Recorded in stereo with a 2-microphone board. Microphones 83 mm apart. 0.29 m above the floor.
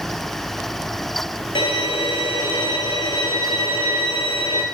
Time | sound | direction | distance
1.6 | a violin | 70° left (ahead or behind) | 0.9 m